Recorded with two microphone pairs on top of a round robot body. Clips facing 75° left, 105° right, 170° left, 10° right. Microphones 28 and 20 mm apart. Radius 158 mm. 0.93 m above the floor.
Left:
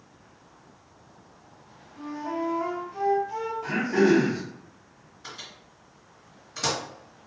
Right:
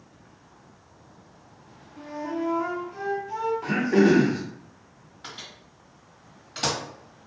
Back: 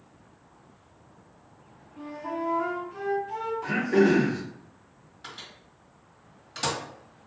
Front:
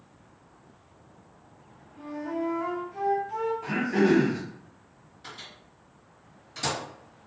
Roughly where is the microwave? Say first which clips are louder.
Right 1 dB, back 1 dB; behind right.